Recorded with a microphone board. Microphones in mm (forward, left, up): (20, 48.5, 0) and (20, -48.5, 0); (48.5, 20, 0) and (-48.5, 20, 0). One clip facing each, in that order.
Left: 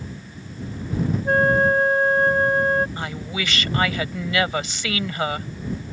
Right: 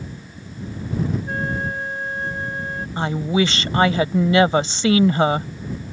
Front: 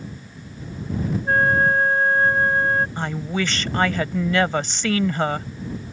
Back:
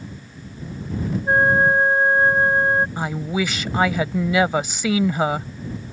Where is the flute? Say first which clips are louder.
Left 8 dB, back 2 dB; 110° left.